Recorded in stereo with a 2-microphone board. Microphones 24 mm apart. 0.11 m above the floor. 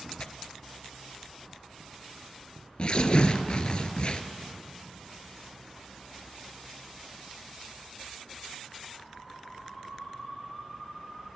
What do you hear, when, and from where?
0.2 s tearing paper: 45° left (ahead or behind), 0.6 m